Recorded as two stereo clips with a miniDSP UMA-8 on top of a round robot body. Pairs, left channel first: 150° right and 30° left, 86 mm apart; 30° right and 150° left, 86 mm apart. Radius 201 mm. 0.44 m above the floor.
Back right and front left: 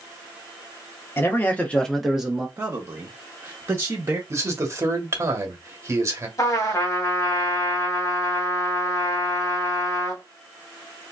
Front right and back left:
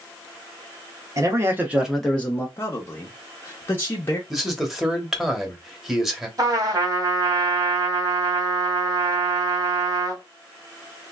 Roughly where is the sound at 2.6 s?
Ahead.